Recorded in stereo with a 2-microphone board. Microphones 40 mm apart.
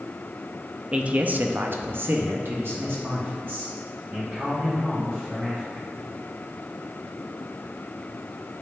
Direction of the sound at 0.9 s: 25° right (ahead or behind).